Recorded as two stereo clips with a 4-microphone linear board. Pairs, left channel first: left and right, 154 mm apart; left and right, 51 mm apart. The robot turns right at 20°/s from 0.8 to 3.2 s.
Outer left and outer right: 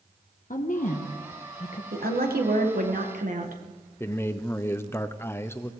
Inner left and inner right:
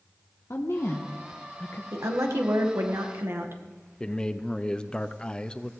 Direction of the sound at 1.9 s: 85° right.